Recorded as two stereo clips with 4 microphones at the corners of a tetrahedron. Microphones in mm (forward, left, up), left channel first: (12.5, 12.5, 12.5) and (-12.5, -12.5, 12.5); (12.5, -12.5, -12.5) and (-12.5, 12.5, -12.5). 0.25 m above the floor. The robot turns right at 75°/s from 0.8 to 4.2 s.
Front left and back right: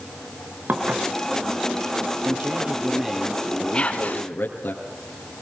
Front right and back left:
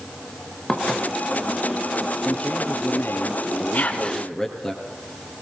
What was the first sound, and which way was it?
Dishes clattering, 105° right.